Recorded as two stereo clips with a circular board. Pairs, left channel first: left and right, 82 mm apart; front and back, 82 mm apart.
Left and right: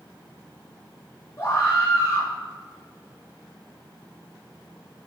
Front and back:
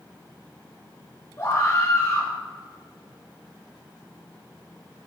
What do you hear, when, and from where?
1.4 s a scream: 45° left, 2 m